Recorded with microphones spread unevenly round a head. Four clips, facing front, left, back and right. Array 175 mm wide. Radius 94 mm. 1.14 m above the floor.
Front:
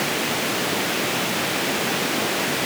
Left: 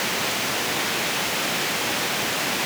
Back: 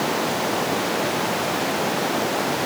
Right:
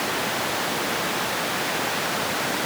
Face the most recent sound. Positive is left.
No sound to turn to.